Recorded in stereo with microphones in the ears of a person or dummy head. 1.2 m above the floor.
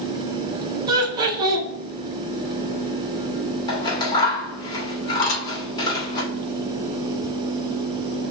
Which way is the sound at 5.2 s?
70° left (ahead or behind).